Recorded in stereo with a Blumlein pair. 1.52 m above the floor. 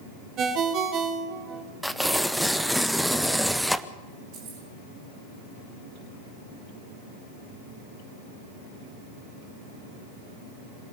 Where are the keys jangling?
40° right, 7 m.